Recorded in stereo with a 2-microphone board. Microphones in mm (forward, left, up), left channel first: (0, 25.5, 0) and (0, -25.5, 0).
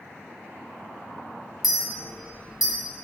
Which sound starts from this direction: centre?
A clink, at 1.6 s.